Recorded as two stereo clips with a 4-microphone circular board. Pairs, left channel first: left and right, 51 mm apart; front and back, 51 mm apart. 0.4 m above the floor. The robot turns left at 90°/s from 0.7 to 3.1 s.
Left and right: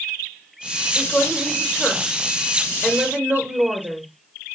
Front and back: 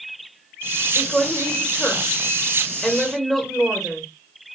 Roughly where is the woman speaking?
Left.